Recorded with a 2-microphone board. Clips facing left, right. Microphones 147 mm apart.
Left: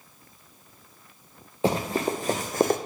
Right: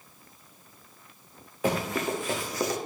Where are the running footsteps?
25° left (ahead or behind), 1.3 m; by 2.8 s 55° left (ahead or behind), 0.7 m.